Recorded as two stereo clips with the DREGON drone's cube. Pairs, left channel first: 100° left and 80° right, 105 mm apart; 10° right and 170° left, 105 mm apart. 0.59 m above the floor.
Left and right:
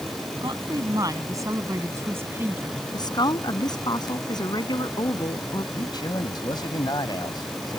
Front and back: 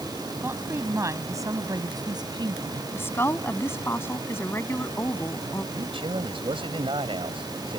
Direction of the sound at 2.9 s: 55° left.